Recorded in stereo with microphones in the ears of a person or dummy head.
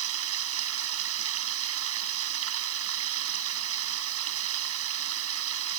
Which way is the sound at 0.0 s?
85° right.